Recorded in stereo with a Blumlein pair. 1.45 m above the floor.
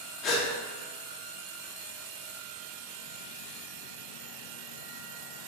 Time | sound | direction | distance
0.2 | a gasp | 30° left | 0.6 m